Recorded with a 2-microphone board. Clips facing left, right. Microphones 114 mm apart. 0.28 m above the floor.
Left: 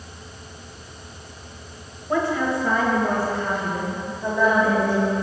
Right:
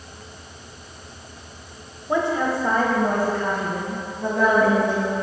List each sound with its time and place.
2.1 s a woman speaking: 15° right (ahead or behind), 0.9 m; by 5.1 s 65° right (ahead or behind), 2.5 m